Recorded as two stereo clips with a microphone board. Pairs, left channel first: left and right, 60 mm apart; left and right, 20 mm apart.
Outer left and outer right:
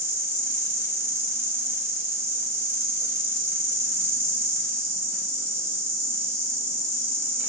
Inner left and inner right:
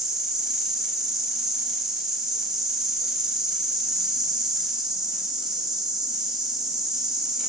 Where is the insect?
50° right (ahead or behind), 0.8 m.